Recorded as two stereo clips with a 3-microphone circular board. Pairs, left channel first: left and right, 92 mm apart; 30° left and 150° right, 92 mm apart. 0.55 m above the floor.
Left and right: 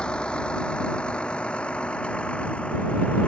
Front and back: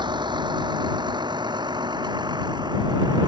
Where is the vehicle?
170° left.